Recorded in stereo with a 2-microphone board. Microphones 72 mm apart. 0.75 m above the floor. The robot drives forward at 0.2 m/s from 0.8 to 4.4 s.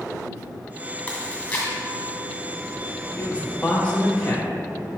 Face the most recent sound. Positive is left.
turn(degrees=20)  # may be behind; listen again after turning